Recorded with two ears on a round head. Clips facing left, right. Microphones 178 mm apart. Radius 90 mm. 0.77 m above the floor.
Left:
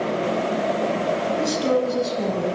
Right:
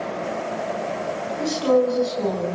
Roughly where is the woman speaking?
Centre.